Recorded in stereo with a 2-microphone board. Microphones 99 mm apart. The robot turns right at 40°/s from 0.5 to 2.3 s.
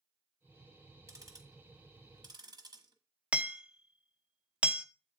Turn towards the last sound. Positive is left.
turn(degrees=-10)  # may be behind; listen again after turning